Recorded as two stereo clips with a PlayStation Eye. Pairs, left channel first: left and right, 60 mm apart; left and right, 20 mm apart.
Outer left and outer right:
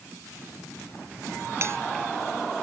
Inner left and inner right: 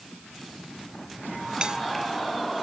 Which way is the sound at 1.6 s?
45° right (ahead or behind).